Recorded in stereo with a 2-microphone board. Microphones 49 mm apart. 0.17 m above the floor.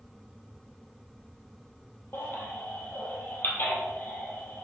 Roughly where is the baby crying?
Left.